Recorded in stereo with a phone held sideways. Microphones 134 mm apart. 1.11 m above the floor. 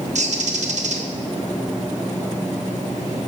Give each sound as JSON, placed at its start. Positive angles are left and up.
{"t": 0.1, "sound": "a bird", "side_deg": -65, "distance_m": 0.6}